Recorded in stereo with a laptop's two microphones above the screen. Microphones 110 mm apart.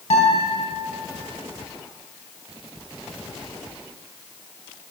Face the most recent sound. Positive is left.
turn(degrees=80)